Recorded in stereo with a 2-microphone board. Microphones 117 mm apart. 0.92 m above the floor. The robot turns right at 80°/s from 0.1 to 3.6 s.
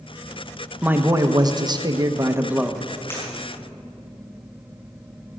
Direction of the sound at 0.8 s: 160° right.